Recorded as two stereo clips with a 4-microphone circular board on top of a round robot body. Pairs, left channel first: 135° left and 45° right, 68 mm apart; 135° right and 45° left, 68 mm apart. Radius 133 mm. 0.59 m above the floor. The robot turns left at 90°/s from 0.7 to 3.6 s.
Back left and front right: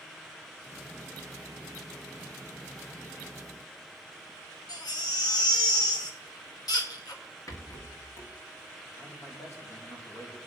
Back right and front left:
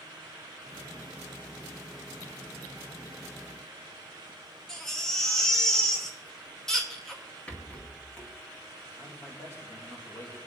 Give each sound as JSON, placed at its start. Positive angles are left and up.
{"t": 4.7, "sound": "a baby crying", "azimuth_deg": 145, "distance_m": 1.9}
{"t": 7.5, "sound": "a rattle", "azimuth_deg": 160, "distance_m": 2.0}
{"t": 9.0, "sound": "a man speaking", "azimuth_deg": 180, "distance_m": 3.0}